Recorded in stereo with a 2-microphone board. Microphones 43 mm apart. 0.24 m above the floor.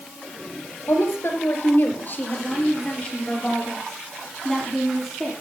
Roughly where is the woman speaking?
Left.